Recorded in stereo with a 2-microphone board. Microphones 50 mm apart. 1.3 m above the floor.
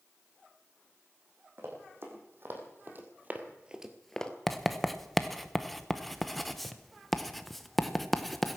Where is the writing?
Centre (ahead or behind), 0.9 m.